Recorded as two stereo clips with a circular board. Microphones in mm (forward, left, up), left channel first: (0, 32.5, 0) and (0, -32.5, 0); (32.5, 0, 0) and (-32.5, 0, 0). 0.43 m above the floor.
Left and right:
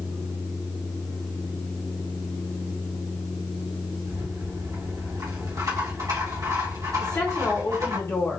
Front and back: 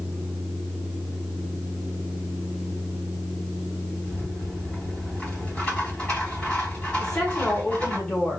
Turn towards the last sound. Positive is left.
turn(degrees=65)